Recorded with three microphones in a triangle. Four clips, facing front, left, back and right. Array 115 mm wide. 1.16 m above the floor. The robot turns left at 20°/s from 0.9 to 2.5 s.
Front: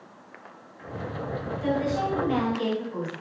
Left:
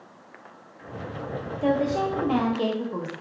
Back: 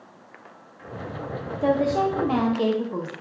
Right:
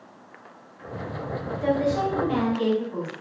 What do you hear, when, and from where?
1.6 s a woman speaking: 170° left, 0.7 m; by 3.1 s 150° left, 0.7 m